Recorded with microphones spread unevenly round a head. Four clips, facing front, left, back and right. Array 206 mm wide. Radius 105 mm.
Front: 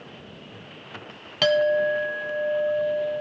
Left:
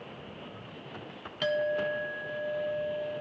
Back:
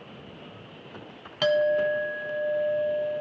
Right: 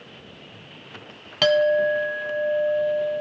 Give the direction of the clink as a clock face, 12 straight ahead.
2 o'clock.